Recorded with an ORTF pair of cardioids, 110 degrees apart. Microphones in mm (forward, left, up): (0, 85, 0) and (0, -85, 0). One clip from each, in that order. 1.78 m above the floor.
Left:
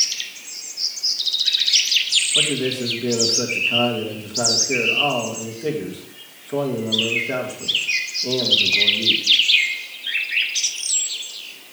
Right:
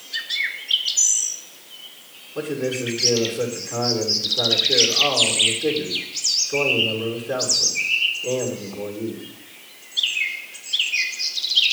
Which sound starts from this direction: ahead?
A man speaking, at 2.4 s.